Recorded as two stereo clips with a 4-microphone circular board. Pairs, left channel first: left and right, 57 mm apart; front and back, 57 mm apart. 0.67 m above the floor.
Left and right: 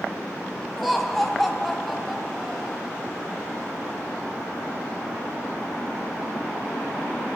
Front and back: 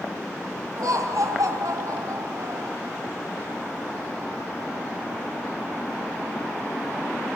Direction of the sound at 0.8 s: Straight behind.